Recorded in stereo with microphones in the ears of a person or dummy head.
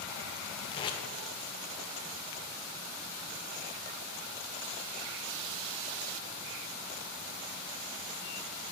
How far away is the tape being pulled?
About 0.5 m.